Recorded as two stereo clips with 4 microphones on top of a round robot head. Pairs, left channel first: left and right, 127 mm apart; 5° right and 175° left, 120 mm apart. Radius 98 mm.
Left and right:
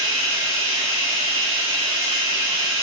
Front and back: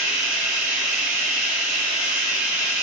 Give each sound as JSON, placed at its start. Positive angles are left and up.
{"t": 0.0, "sound": "running water", "azimuth_deg": -135, "distance_m": 5.0}